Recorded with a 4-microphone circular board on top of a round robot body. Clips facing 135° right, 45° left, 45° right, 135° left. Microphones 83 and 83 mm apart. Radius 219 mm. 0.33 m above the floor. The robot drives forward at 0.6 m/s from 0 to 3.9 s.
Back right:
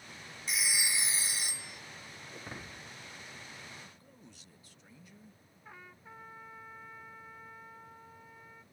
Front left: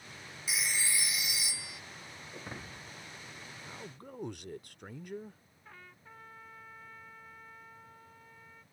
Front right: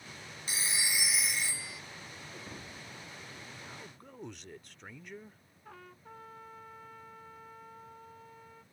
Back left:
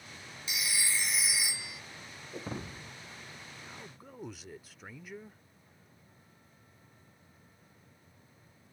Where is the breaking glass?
130° left; by 3.0 s 140° left.